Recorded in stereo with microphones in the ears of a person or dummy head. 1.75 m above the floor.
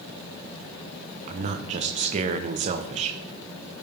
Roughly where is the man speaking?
Right.